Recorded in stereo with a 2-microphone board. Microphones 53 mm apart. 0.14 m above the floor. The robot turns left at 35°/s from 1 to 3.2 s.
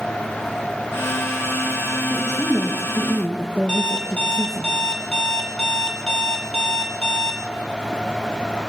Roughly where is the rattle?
I don't hear a rattle.